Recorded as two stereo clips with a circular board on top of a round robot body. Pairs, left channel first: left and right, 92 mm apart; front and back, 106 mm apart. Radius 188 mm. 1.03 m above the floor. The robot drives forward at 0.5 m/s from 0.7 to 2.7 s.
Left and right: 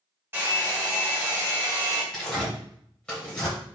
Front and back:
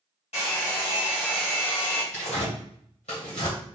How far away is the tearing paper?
About 1.0 m.